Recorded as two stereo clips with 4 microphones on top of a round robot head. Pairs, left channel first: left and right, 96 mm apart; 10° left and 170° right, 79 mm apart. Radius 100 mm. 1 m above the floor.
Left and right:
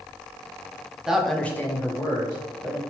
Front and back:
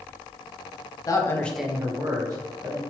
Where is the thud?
No thud in this recording.